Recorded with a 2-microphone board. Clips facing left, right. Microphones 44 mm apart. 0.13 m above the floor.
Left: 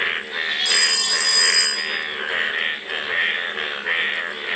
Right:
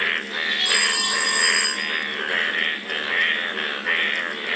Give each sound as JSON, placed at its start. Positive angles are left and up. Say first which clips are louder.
{"t": 0.7, "sound": "a phone ringing", "louder": "even", "side_deg": -15, "distance_m": 6.0}